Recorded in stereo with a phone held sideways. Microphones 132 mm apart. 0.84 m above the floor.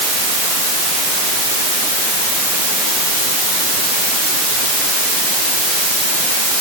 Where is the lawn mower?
No lawn mower in this recording.